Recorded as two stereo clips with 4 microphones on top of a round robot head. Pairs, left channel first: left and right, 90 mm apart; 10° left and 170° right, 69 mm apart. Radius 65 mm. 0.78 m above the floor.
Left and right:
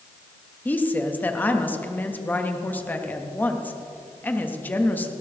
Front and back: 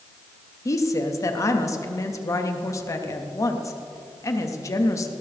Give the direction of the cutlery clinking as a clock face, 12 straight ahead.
No cutlery clinking in this recording.